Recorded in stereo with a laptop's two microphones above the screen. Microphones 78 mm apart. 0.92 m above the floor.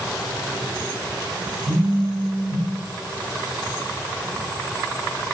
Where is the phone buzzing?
40° right (ahead or behind), 0.8 m.